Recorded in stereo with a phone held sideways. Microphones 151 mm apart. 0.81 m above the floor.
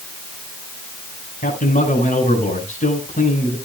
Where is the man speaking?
60° left (ahead or behind), 5 m.